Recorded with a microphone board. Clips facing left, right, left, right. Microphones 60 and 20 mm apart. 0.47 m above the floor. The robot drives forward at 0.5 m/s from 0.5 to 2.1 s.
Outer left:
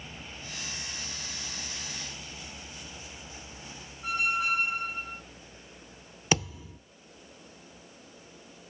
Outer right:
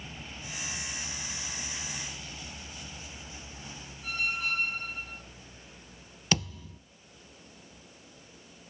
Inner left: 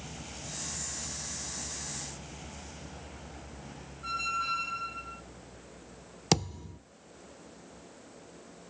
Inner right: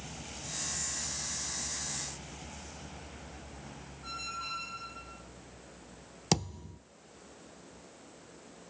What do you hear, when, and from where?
4.0 s a squeak: 15° left (ahead or behind), 1.6 m
6.3 s a thud: 15° left (ahead or behind), 0.5 m